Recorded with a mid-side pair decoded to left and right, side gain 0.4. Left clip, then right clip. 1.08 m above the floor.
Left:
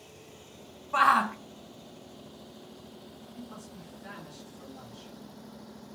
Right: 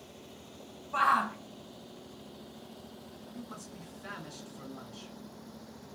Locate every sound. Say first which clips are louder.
0.9 s a shout: left 4 dB; 45° left, 0.7 m
3.3 s a man speaking: right 1 dB; 65° right, 2 m